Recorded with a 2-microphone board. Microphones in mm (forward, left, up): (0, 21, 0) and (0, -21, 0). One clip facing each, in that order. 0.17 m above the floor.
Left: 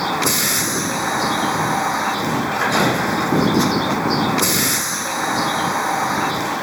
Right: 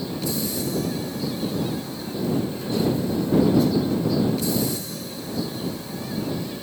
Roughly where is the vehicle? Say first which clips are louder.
Left 8 dB; left.